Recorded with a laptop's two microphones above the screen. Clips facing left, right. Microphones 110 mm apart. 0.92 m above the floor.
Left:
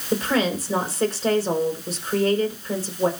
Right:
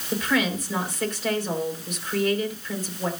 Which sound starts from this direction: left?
A woman speaking, at 0.1 s.